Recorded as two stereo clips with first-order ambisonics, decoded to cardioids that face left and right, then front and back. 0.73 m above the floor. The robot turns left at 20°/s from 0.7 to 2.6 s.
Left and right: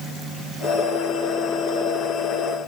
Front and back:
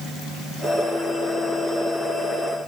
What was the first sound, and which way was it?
Only background noise.